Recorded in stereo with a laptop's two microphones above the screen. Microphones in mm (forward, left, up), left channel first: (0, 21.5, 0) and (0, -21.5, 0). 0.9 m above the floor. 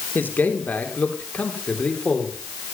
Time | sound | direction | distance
0.1 | a man speaking | 45° left (ahead or behind) | 2.5 m